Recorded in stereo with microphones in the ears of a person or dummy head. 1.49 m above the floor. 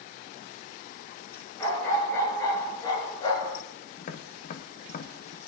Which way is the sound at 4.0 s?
45° left (ahead or behind).